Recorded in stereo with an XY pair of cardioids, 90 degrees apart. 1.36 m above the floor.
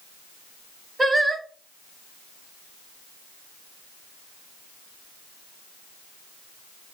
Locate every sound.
1.0 s singing: 20° right, 0.8 m